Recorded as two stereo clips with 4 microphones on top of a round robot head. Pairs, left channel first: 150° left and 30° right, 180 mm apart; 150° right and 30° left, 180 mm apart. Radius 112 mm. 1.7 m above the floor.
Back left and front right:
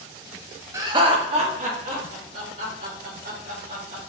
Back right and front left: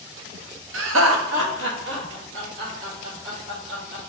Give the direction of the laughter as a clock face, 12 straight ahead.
11 o'clock.